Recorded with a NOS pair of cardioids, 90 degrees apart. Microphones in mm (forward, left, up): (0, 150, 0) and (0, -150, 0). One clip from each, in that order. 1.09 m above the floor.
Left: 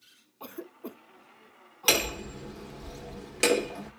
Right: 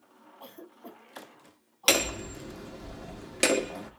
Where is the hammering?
15° right, 1.5 m.